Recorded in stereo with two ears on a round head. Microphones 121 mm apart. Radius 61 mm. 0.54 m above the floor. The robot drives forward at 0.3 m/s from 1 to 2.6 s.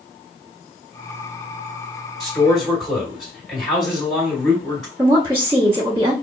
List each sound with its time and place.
2.2 s a man speaking: centre (ahead or behind), 1.7 m
5.0 s a woman speaking: 20° right (ahead or behind), 0.9 m